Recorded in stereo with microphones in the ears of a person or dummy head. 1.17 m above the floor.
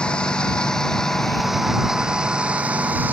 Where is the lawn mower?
10° left (ahead or behind); by 3.1 s 5° right (ahead or behind).